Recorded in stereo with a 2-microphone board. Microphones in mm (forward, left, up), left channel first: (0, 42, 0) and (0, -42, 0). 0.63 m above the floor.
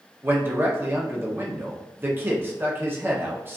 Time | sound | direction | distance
0.2 | a man speaking | 25° right (ahead or behind) | 0.8 m